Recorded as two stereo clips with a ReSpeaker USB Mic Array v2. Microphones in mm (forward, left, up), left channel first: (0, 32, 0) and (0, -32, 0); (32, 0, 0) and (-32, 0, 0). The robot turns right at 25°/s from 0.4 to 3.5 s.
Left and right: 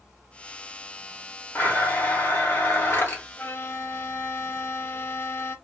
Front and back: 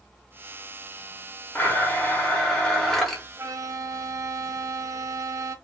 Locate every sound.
1.6 s a blender: 45° left, 1.1 m; by 3.2 s 85° left, 1.1 m
3.4 s a violin: 140° left, 0.6 m; by 5.5 s 145° left, 0.6 m